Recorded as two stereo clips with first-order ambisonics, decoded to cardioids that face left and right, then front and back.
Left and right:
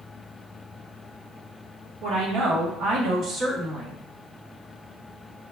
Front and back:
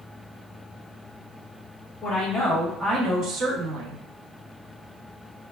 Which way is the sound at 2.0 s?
65° right.